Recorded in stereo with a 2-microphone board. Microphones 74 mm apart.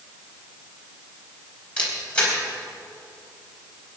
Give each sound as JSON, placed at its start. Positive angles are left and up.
{"t": 1.8, "sound": "a camera shutter", "side_deg": 15, "distance_m": 4.0}